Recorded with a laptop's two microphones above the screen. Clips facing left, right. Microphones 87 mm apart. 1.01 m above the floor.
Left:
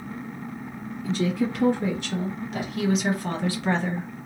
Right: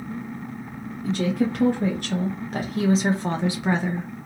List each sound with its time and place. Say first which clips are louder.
1.0 s a woman speaking: right 2 dB; 55° right (ahead or behind), 1.5 m; by 4.1 s centre (ahead or behind), 0.8 m